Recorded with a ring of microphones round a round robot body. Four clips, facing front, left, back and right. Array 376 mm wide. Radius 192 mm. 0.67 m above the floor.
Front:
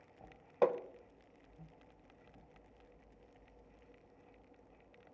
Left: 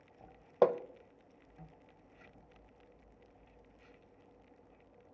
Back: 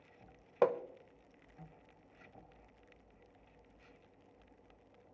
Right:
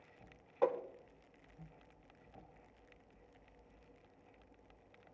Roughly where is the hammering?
Left.